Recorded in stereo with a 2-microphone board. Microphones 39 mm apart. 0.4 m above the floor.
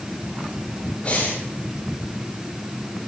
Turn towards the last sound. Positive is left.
turn(degrees=30)  # may be behind; listen again after turning